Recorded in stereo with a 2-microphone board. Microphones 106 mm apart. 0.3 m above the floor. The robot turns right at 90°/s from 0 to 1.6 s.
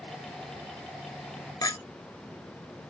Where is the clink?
35° left (ahead or behind), 0.5 m.